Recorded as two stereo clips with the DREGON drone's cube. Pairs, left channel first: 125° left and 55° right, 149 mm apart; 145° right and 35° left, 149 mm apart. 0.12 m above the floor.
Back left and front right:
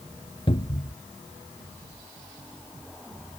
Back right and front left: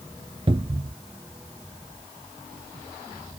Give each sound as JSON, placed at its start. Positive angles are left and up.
{"t": 0.5, "sound": "a cupboard door", "azimuth_deg": 80}